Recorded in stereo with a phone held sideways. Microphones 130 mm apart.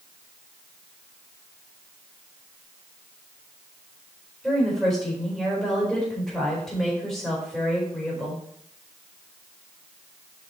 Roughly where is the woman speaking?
Centre.